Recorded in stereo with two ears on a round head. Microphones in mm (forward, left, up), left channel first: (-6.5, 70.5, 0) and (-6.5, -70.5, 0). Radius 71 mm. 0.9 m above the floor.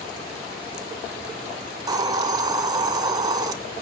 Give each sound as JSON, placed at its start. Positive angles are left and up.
{"t": 1.9, "sound": "a hiss", "side_deg": -25, "distance_m": 0.7}